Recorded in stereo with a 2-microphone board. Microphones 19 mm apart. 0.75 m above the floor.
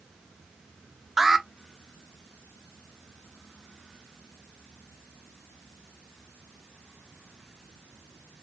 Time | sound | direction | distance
1.2 | an alarm | 15° right (ahead or behind) | 0.7 m